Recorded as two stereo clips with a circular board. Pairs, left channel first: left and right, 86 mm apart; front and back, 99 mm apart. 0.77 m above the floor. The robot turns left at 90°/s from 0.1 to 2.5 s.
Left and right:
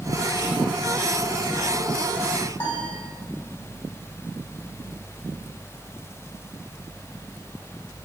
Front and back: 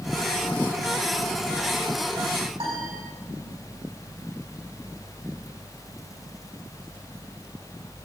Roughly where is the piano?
Behind.